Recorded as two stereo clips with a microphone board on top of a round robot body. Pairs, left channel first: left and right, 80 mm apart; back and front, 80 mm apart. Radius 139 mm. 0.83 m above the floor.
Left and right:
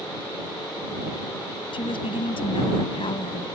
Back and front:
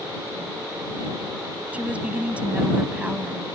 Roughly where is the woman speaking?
Left.